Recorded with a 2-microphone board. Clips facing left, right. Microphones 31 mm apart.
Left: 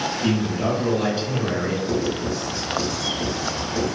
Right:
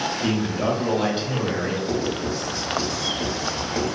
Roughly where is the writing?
Right.